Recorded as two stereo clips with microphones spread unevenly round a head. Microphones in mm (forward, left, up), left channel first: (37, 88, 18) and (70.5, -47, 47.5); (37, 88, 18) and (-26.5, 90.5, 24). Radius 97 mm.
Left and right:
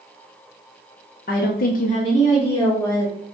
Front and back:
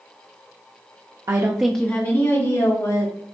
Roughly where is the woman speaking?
Behind left.